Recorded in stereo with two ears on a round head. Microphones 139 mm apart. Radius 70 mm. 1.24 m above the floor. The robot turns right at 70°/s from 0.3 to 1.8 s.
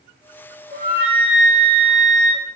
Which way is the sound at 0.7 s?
95° right.